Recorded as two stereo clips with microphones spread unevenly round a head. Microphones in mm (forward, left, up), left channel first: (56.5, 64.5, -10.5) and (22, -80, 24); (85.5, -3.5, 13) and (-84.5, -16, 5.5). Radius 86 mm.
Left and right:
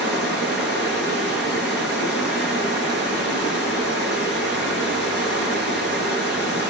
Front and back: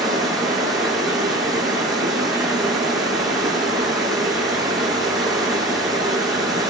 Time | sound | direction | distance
0.0 | running water | 95° left | 9 m